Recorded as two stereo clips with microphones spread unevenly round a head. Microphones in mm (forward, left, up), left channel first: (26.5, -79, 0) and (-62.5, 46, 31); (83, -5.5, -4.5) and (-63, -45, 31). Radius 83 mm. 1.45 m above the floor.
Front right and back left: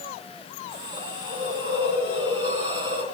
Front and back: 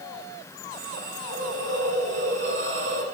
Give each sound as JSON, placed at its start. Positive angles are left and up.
{"t": 0.7, "sound": "a hiss", "azimuth_deg": 180, "distance_m": 3.5}